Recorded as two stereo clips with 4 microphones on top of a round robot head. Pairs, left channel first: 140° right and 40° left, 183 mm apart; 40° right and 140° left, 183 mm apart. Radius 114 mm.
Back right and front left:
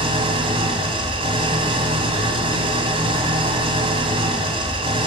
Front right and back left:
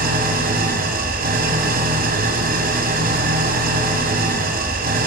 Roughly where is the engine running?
Left.